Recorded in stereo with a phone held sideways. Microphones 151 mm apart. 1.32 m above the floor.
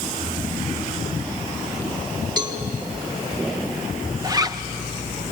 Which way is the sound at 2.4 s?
25° right (ahead or behind).